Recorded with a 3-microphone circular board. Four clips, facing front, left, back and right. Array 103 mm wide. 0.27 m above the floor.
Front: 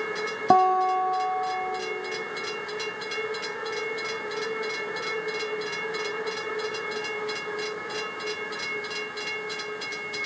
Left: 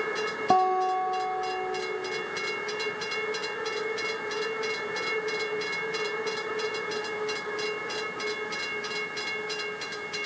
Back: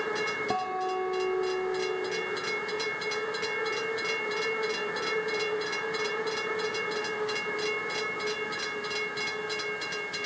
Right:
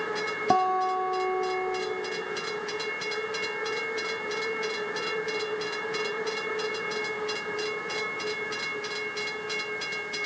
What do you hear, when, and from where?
0.5 s a guitar: straight ahead, 1.2 m